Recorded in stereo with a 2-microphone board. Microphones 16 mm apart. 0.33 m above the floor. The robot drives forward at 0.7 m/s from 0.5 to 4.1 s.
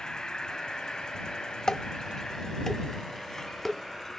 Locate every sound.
0.0 s an insect: 55° left (ahead or behind), 1.6 m; by 4.2 s 30° left (ahead or behind), 2.5 m
1.7 s dishes clattering: 50° left (ahead or behind), 1.0 m; by 3.8 s 25° left (ahead or behind), 2 m